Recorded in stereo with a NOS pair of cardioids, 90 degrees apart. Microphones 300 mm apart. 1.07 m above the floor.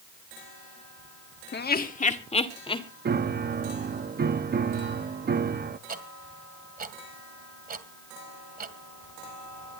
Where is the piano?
35° right, 1.0 m.